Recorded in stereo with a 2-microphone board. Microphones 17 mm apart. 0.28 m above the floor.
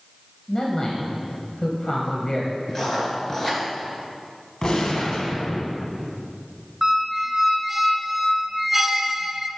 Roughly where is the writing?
Left.